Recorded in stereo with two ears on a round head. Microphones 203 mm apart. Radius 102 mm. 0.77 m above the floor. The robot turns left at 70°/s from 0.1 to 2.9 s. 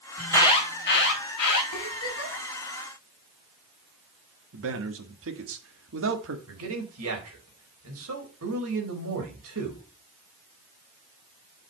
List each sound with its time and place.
0.2 s an alarm: straight behind, 4.5 m; by 1.6 s 80° left, 4.5 m
1.7 s a giggle: 85° left, 4.5 m; by 2.5 s 35° left, 4.5 m
4.5 s a man speaking: 60° right (ahead or behind), 1.9 m
6.5 s a man speaking: 65° right (ahead or behind), 4 m